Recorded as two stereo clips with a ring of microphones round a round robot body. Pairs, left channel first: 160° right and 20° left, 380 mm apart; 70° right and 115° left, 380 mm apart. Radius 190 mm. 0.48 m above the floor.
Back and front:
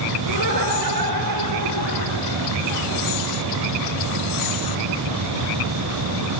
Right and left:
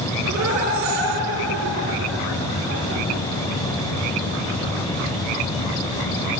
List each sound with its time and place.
0.2 s laughter: 60° left, 9 m